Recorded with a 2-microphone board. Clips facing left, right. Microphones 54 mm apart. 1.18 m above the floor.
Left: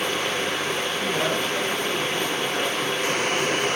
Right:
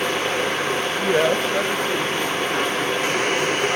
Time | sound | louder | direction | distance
1.0 | a woman speaking | right 8 dB | 50° right (ahead or behind) | 1.9 m